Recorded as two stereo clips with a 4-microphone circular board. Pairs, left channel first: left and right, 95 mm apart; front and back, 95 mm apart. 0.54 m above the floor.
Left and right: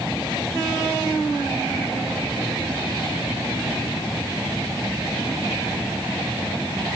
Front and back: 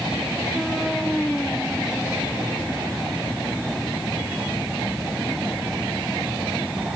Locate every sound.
Only background noise.